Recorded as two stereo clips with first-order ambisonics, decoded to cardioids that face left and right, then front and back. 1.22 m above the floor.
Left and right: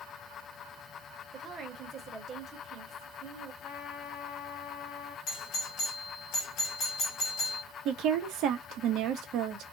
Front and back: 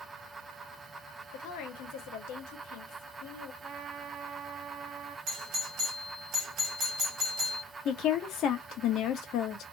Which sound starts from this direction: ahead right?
A woman speaking, at 7.8 s.